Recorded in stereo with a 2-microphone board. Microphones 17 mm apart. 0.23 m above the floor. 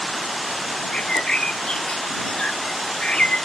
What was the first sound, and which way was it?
A bird, 60° left (ahead or behind).